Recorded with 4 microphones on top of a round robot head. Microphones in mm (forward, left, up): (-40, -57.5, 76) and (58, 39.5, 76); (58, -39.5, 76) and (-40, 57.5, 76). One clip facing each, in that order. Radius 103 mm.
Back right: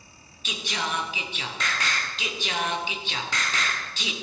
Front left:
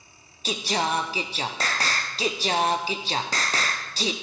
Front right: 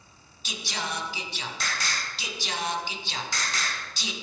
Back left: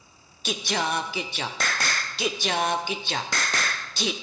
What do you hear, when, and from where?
0.5 s singing: 105° left, 0.7 m